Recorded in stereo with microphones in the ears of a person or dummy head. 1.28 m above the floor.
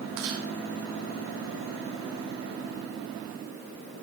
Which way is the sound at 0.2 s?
65° right (ahead or behind).